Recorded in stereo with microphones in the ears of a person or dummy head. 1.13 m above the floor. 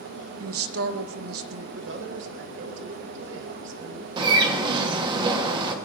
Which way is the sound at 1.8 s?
65° right (ahead or behind).